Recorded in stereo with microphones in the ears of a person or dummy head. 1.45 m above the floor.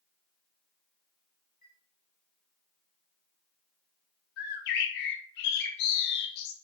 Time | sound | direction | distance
1.6 | a chime | 45° left (ahead or behind) | 3.5 m
4.4 | a bird | 65° left (ahead or behind) | 2 m